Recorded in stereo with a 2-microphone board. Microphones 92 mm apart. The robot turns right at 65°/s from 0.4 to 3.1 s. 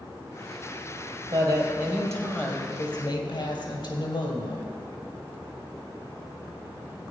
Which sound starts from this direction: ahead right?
A woman speaking, at 1.3 s.